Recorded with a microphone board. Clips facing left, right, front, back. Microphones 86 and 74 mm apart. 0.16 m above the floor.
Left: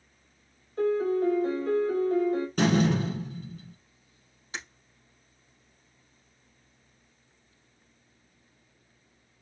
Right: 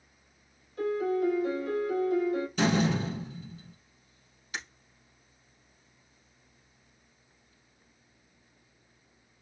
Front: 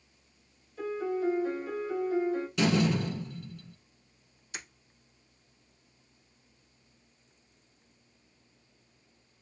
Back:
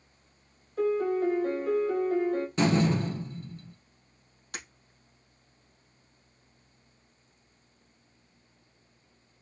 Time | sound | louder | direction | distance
0.8 | a piano | left 3 dB, back 5 dB | 145° left | 1.9 m
2.6 | a door slam | left 3 dB, back 1 dB | 125° left | 3 m
4.5 | breaking glass | even, back 2 dB | 150° left | 3.5 m